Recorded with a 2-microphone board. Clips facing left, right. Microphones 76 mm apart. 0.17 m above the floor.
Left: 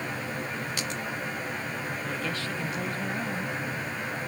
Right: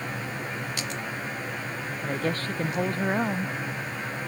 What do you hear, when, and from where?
2.0 s a woman speaking: 45° right (ahead or behind)